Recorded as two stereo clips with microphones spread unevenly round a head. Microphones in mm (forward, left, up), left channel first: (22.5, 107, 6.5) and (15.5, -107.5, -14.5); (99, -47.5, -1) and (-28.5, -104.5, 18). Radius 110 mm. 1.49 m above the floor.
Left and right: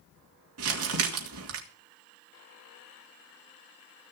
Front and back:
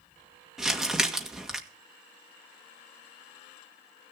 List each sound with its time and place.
0.6 s crumpling: 70° right, 2 m